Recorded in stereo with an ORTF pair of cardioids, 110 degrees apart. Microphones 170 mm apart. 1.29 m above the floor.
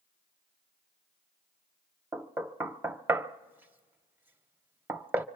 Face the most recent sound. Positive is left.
turn(degrees=-10)